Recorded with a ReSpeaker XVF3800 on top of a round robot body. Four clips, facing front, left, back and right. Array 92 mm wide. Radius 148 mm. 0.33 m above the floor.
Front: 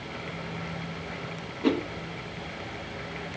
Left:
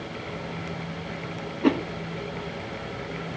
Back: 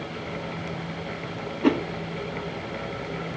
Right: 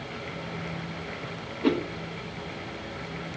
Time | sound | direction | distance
1.6 | a whoosh | 145° left | 1.2 m